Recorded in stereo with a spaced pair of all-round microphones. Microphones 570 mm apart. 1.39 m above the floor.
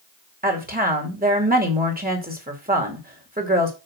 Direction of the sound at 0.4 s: 15° right (ahead or behind).